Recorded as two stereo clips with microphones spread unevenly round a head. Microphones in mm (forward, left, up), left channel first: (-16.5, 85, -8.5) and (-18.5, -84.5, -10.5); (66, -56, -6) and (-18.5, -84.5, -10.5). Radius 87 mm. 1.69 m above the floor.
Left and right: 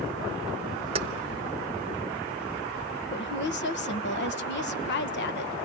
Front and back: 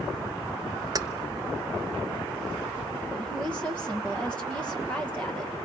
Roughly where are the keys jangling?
Behind right.